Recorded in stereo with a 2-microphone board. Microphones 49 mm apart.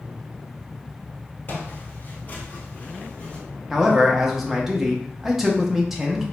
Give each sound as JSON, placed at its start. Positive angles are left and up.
{"t": 1.5, "sound": "footsteps", "side_deg": 45, "distance_m": 1.1}
{"t": 3.7, "sound": "a man speaking", "side_deg": -5, "distance_m": 0.7}